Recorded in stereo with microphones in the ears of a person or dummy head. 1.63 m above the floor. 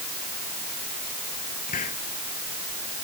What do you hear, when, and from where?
1.7 s a hiss: 45° left (ahead or behind)